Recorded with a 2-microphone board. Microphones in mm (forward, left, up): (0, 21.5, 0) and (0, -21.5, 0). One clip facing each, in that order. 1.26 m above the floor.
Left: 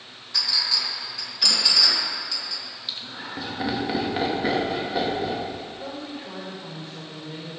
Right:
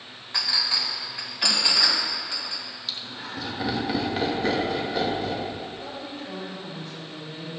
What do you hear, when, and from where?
0.3 s a clink: 30° right (ahead or behind), 2 m
2.9 s laughter: 10° left (ahead or behind), 2 m
5.8 s a woman speaking: 25° left (ahead or behind), 4.5 m